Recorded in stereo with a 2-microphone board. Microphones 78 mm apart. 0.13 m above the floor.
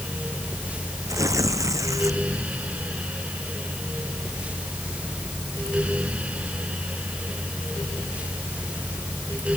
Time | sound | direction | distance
1.1 | tearing paper | 45° right (ahead or behind) | ?